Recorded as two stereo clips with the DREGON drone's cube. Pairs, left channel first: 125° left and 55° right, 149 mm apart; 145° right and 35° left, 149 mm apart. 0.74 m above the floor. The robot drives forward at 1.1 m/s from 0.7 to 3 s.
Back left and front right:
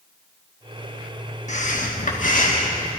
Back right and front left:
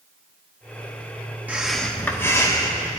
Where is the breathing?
110° left, 1.2 m; by 3.0 s 155° left, 2.5 m.